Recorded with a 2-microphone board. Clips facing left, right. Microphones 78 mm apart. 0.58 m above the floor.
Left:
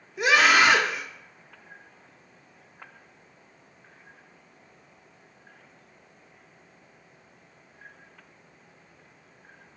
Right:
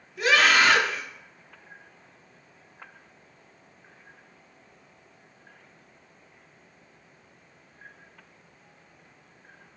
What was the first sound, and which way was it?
A scream, 20° left (ahead or behind).